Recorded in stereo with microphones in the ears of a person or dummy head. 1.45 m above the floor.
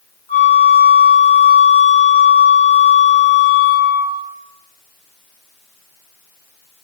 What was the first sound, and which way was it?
A flute, 30° left (ahead or behind).